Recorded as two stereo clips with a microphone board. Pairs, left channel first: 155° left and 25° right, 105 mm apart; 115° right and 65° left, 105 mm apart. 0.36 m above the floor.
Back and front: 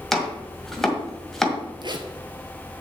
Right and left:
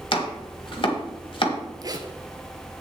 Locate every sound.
0.1 s chopping: 115° right, 1.8 m
1.8 s a zipper: 15° left, 1.1 m